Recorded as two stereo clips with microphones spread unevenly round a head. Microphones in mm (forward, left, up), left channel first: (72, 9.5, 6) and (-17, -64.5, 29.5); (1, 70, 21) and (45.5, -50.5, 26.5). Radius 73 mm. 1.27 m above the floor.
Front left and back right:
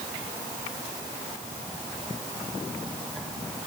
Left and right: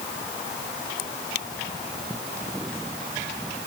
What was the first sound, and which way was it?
Only background noise.